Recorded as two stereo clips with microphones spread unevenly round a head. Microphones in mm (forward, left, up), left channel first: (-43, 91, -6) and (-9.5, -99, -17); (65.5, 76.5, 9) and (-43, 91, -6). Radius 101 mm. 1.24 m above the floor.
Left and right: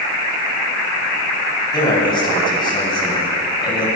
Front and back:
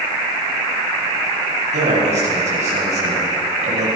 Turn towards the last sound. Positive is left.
turn(degrees=165)